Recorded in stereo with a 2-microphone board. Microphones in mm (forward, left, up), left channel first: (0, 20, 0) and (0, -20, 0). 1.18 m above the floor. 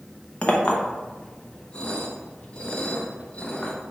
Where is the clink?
25° left (ahead or behind), 0.5 m.